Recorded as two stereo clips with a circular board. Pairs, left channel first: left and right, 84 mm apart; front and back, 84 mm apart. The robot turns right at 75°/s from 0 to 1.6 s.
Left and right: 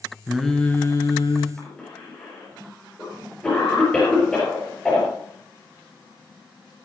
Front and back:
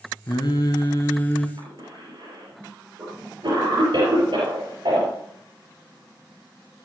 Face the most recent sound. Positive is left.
turn(degrees=170)